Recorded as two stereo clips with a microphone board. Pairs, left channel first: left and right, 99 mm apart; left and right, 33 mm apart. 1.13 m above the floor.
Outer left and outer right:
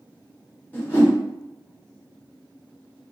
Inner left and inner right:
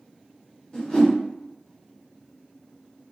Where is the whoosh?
20° left (ahead or behind), 1.4 m.